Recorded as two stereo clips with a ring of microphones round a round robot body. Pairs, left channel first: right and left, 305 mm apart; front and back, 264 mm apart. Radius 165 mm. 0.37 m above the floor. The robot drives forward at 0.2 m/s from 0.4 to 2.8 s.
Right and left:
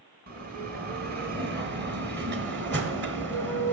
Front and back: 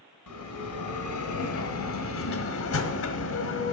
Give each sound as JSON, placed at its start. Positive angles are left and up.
{"t": 0.3, "sound": "a bell", "azimuth_deg": 30, "distance_m": 2.0}